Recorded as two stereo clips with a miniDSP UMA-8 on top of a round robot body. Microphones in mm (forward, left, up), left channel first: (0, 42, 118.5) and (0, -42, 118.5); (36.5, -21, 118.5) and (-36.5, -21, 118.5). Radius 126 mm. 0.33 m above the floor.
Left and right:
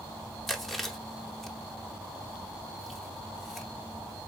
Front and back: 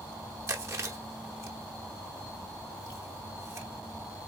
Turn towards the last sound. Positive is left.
turn(degrees=180)